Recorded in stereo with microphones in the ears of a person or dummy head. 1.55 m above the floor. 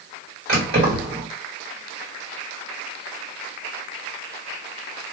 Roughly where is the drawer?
I don't hear a drawer.